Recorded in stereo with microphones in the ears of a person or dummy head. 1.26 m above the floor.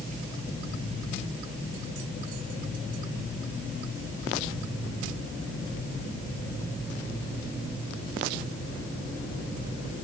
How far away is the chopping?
No chopping in this recording.